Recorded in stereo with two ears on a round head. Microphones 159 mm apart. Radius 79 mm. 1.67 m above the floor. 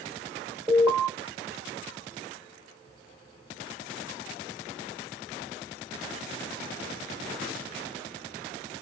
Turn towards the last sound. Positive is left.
turn(degrees=-20)  # may be behind; listen again after turning